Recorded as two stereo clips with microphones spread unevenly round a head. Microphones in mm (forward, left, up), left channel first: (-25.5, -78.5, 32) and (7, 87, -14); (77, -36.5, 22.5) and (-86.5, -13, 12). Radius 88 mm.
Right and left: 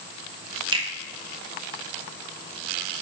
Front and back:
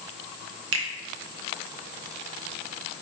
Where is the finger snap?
145° left, 1.4 m.